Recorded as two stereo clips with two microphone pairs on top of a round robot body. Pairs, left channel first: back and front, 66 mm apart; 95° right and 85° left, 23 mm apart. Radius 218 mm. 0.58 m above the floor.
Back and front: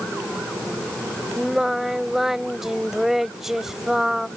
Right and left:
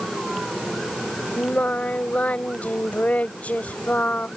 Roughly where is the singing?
Right.